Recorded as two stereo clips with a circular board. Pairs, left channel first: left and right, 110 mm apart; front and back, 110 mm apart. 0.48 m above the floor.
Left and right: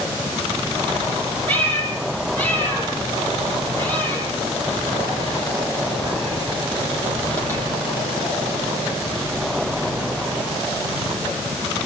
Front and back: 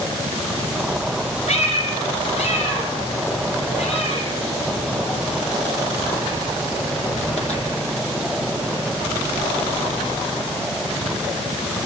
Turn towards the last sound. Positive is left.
turn(degrees=15)